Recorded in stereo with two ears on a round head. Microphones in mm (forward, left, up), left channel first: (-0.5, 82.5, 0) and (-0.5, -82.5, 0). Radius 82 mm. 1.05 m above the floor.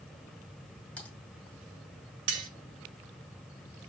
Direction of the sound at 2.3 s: 75° right (ahead or behind).